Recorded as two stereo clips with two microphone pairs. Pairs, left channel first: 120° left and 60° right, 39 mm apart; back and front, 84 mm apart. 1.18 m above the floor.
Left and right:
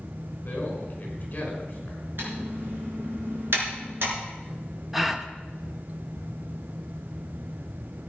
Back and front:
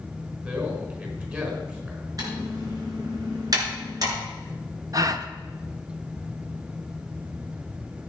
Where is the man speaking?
70° left, 4.5 m.